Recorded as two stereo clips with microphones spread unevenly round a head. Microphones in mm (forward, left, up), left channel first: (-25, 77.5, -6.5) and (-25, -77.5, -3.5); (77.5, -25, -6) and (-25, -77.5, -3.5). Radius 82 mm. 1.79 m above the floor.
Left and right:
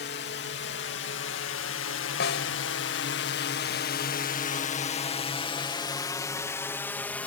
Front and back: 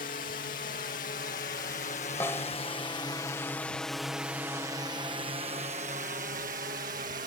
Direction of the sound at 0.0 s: 60° left.